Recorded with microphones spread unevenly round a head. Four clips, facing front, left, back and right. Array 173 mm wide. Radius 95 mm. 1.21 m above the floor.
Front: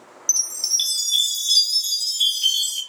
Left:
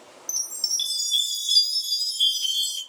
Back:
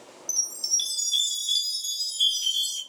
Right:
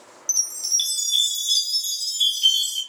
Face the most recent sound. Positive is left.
turn(degrees=30)